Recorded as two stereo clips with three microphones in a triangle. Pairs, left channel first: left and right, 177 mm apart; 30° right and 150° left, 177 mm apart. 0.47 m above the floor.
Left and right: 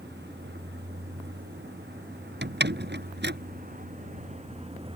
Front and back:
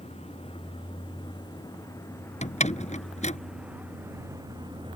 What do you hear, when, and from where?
0.0 s a vehicle: 85° right; by 5.0 s 150° right
2.4 s a door slam: 80° right